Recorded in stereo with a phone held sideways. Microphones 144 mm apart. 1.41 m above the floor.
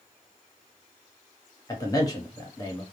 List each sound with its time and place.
1.7 s a man speaking: 25° left (ahead or behind), 1.0 m